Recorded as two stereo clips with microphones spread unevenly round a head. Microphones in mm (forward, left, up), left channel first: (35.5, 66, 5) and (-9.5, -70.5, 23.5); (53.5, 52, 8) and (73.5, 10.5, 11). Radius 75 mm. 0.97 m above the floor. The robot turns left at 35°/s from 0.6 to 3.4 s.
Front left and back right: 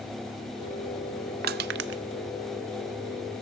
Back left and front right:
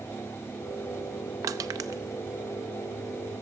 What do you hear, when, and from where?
1.4 s crushing: 80° right, 0.5 m; by 2.0 s 100° right, 0.5 m